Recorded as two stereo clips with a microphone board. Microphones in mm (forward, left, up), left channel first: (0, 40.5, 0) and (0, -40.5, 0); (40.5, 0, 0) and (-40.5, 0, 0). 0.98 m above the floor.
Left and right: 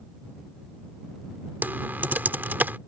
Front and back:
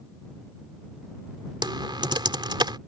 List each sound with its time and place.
1.6 s typing on a keyboard: 155° right